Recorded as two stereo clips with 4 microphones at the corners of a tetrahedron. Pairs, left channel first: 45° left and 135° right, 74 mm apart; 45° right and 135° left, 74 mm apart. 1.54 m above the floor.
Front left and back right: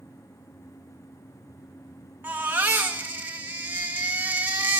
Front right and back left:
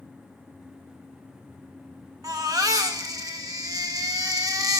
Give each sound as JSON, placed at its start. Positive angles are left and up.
{"t": 2.2, "sound": "a baby crying", "azimuth_deg": 165, "distance_m": 1.3}